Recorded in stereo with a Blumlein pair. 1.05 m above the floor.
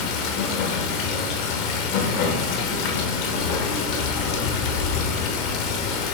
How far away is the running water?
About 0.9 m.